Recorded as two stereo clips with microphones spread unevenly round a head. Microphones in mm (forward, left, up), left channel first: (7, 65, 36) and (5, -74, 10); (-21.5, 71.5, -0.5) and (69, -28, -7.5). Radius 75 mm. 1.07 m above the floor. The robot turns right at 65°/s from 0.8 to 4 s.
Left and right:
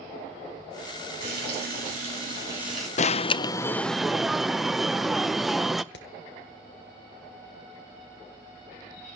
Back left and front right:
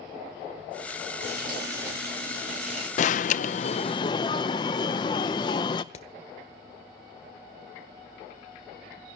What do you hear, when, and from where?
1.2 s frying: 105° right, 8 m; by 2.9 s 5° left, 8 m
3.0 s an alarm: 125° left, 0.6 m; by 5.8 s 170° right, 0.6 m
5.9 s hammering: 95° left, 1.7 m